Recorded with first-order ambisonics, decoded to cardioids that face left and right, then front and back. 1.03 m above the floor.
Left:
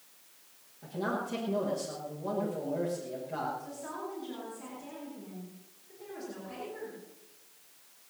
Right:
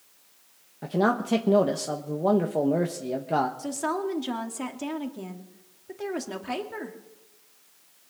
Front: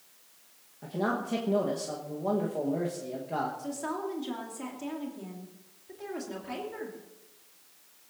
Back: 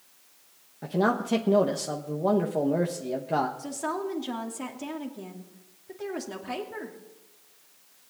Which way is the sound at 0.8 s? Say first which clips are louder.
Right 9 dB, back 5 dB; 115° right.